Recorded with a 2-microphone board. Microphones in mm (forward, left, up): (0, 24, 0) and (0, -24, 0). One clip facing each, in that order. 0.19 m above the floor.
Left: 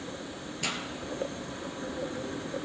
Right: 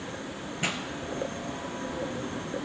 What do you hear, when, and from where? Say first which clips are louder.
0.6 s a pop: right 3 dB; 25° right (ahead or behind), 1.6 m